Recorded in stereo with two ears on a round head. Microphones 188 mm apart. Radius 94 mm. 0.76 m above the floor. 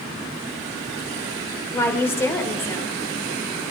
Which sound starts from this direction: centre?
A woman speaking, at 1.7 s.